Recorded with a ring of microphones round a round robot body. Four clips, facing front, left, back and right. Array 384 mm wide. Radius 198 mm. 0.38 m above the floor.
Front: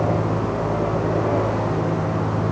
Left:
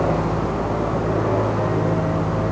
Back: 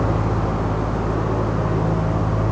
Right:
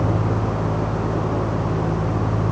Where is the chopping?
No chopping in this recording.